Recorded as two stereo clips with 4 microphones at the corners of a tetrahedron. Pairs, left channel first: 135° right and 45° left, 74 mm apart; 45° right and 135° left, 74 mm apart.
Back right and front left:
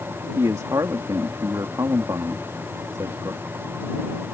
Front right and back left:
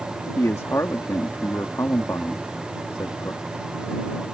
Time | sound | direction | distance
0.3 | a man speaking | 5° left | ?